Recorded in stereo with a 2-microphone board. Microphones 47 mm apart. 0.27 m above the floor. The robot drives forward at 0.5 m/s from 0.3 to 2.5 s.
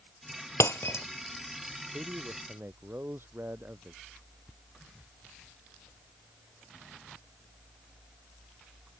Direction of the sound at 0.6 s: 70° left (ahead or behind).